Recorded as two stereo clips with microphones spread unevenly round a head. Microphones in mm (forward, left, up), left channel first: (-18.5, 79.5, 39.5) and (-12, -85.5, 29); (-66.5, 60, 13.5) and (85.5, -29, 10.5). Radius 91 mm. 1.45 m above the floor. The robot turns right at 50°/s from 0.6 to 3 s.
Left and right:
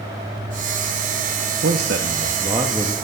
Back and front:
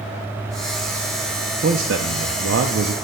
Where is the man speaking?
65° right, 0.5 m; by 2.9 s straight ahead, 0.5 m.